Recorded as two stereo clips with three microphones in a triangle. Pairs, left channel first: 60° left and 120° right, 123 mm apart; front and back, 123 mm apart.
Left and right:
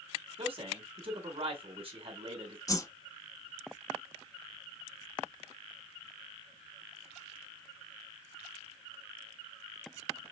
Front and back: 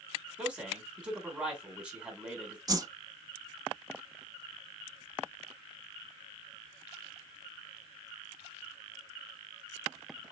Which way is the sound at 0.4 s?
100° right.